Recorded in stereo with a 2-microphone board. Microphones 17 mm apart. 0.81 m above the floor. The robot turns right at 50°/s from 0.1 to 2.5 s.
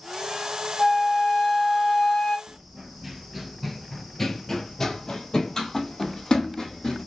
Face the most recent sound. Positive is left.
turn(degrees=50)  # may be behind; listen again after turning